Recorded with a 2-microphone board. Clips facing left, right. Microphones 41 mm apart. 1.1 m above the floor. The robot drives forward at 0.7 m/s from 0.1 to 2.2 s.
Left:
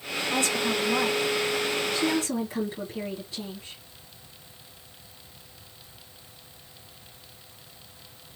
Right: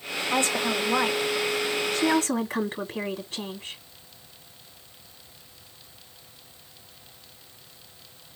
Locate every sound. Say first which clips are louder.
0.3 s a woman speaking: right 1 dB; 35° right (ahead or behind), 2 m; by 3.8 s 65° right (ahead or behind), 1.3 m